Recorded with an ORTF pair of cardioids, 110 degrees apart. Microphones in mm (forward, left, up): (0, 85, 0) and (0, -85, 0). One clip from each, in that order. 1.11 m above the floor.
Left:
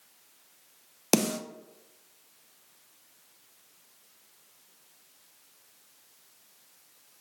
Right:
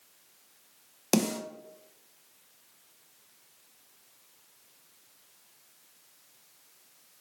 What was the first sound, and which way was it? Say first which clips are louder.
A snare drum: left 2 dB; 10° left.